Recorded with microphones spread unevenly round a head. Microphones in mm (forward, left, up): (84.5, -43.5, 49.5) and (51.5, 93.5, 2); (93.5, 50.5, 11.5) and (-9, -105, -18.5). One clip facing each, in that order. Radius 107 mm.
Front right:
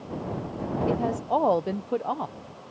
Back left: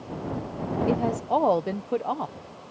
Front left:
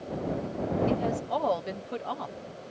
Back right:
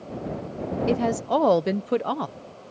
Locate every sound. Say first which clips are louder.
0.9 s a woman speaking: back left 1 dB, back right 5 dB; 155° right